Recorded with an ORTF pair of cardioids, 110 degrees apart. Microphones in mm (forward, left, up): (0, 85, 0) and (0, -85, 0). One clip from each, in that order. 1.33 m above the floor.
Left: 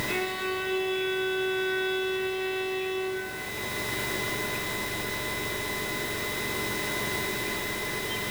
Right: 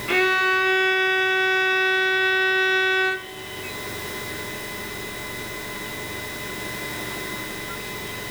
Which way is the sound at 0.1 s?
60° right.